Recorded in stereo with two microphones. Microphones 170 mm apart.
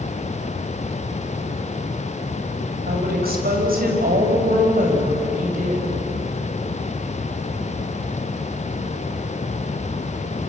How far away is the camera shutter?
I don't hear a camera shutter.